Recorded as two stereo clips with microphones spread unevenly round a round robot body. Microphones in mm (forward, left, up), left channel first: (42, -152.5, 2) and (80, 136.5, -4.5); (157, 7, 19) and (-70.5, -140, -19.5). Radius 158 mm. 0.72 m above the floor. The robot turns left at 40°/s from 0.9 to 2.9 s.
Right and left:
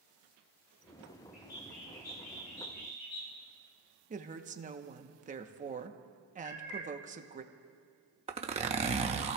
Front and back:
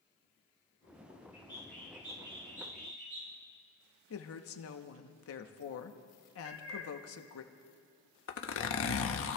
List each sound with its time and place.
1.3 s a bird: 35° right, 4.5 m; by 3.4 s 95° right, 4.5 m
4.1 s a woman speaking: 35° left, 1.0 m
6.4 s a cat meowing: 75° right, 3.5 m
8.3 s a zipper: 30° left, 0.9 m